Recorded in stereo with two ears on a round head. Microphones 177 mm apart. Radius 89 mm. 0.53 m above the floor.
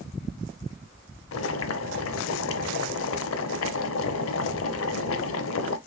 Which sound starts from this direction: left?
Boiling, at 1.3 s.